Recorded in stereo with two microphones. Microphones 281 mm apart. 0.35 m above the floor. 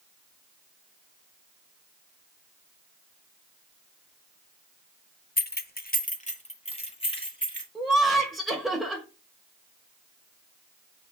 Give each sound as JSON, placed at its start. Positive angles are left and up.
{"t": 5.4, "sound": "keys jangling", "side_deg": 30, "distance_m": 0.8}
{"t": 7.8, "sound": "laughter", "side_deg": 0, "distance_m": 1.4}